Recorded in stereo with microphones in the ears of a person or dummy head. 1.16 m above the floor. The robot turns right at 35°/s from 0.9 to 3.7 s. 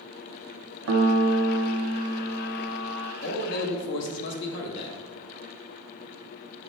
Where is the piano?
65° right, 0.6 m; by 3.1 s 10° left, 0.6 m.